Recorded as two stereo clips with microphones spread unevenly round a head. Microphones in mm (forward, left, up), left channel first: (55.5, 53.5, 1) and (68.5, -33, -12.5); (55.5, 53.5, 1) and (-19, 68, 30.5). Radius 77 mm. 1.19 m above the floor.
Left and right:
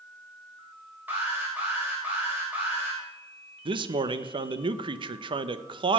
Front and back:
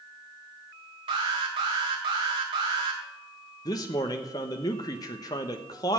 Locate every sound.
1.1 s an alarm: 155° right, 2.5 m
3.6 s a man speaking: 60° right, 1.0 m